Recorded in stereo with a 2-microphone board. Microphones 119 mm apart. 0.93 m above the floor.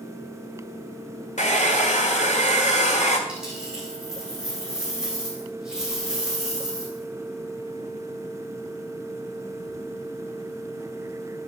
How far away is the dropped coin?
About 5 m.